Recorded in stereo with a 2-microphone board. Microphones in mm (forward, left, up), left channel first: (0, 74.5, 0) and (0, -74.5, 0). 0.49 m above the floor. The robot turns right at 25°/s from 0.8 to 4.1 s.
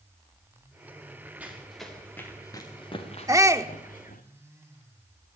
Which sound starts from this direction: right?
A shout, at 3.3 s.